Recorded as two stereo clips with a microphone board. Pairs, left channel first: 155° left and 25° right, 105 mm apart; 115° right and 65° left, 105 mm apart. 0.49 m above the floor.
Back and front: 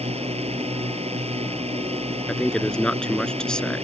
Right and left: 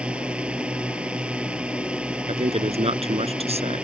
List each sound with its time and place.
0.0 s a drone: 10° right
2.3 s a man speaking: 75° left